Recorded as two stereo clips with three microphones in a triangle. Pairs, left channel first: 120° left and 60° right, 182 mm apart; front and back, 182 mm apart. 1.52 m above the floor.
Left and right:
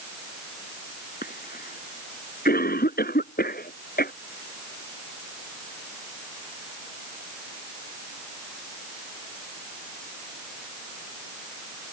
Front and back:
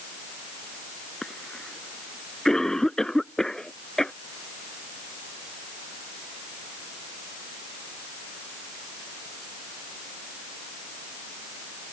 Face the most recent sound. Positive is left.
turn(degrees=85)